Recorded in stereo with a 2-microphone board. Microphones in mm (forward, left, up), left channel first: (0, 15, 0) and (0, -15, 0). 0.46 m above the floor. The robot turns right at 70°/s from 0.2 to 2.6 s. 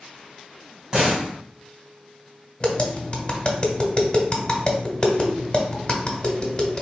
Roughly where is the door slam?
Centre.